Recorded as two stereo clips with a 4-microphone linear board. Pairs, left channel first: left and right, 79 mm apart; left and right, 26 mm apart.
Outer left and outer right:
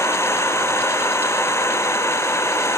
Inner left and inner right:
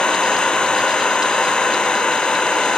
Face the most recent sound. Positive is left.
turn(degrees=35)  # may be behind; listen again after turning